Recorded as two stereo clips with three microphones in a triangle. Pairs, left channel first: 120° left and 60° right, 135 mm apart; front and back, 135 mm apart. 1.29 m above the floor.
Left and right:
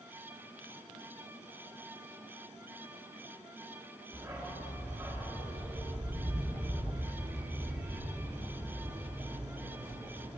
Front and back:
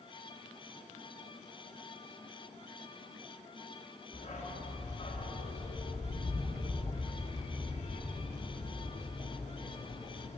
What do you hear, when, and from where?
4.1 s a dog barking: 10° left, 1.0 m